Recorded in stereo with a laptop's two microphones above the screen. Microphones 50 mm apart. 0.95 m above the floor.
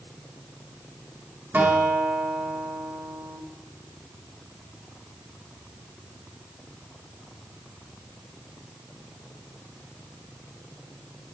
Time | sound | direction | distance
1.5 | a guitar | 45° right (ahead or behind) | 1.7 m